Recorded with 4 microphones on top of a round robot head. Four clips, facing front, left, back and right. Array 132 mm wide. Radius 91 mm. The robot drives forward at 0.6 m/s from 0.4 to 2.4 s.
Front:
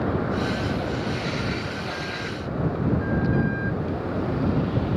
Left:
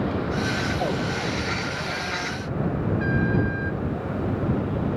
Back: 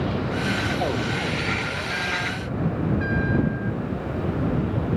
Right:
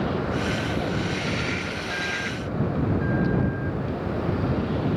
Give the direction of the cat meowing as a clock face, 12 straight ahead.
No cat meowing in this recording.